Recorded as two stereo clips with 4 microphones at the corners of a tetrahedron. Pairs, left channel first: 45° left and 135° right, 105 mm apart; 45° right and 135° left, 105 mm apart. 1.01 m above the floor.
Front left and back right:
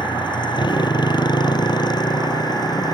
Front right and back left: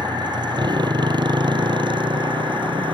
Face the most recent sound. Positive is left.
turn(degrees=95)